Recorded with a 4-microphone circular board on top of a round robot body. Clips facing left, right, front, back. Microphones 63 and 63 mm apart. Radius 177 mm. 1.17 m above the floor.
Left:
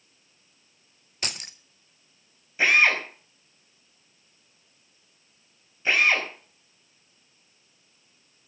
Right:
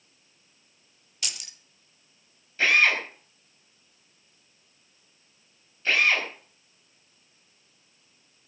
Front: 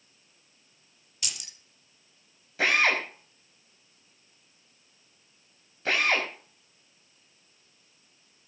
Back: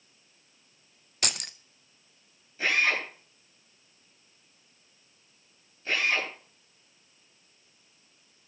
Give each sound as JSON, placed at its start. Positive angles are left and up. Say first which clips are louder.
{"t": 1.2, "sound": "keys jangling", "louder": "left 4 dB, back 7 dB", "azimuth_deg": 140, "distance_m": 0.6}
{"t": 2.6, "sound": "a drill", "louder": "left 1 dB, front 2 dB", "azimuth_deg": 15, "distance_m": 5.5}